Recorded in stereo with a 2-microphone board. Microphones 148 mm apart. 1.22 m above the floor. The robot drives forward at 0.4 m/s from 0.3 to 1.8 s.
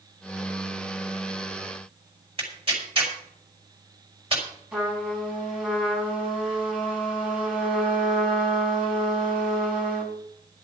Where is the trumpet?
5° right (ahead or behind), 4 m.